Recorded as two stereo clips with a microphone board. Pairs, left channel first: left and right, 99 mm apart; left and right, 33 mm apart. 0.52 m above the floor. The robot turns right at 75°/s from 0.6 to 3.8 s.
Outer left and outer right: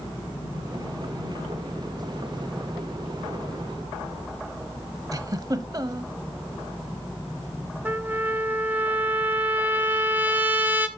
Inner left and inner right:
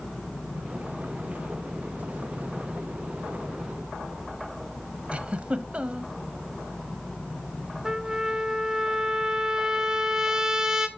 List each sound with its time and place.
5.1 s a giggle: 40° right (ahead or behind), 0.7 m
7.8 s a trumpet: 15° right (ahead or behind), 1.0 m